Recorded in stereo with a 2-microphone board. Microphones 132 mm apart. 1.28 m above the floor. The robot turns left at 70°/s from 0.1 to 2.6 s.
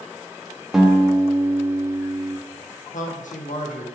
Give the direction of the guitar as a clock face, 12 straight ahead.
12 o'clock.